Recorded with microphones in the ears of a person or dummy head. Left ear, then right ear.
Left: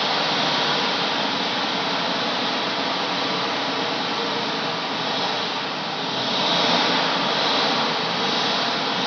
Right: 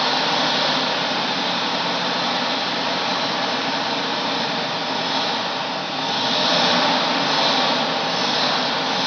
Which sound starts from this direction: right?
An engine running, at 0.0 s.